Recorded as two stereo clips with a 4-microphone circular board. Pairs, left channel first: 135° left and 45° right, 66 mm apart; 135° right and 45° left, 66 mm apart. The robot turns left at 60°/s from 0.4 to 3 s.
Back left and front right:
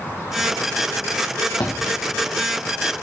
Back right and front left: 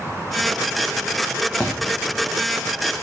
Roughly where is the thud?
Behind left.